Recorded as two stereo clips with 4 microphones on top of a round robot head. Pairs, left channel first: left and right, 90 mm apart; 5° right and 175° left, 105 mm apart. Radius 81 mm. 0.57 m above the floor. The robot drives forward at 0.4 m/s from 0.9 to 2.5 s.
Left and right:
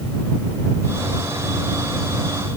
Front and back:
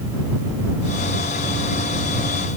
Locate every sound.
Only background noise.